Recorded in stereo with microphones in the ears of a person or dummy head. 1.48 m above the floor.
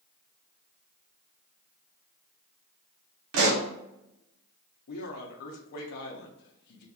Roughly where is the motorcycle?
I don't hear a motorcycle.